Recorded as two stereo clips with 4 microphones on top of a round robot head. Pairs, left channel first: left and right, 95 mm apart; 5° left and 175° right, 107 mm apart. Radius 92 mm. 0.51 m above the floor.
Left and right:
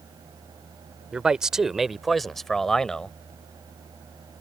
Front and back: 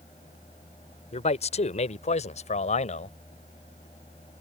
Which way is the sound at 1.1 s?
10° right.